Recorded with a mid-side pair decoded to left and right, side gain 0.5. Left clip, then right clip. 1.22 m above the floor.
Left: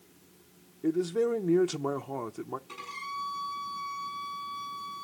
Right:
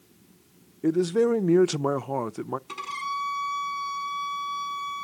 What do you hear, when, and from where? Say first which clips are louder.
0.8 s a man speaking: right 5 dB; 40° right, 0.6 m
2.7 s a violin: right 7 dB; 55° right, 7 m